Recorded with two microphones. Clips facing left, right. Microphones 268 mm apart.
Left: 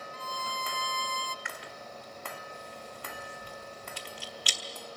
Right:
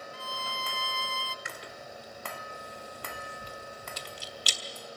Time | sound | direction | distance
0.1 | a violin | 40° left (ahead or behind) | 0.6 m
1.4 | chewing | 45° right (ahead or behind) | 1.5 m